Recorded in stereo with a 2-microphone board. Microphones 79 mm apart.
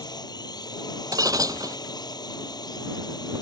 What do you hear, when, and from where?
0.0 s a drone: 60° left (ahead or behind)
1.1 s breaking glass: 50° right (ahead or behind)